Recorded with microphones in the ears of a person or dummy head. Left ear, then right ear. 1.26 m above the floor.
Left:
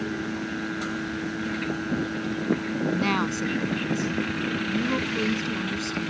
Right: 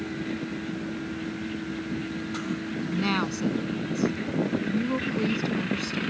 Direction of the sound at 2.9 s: 10° left (ahead or behind).